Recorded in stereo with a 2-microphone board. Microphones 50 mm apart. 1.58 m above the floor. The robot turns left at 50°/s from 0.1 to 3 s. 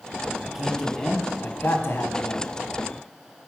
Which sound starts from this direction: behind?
A man speaking, at 0.4 s.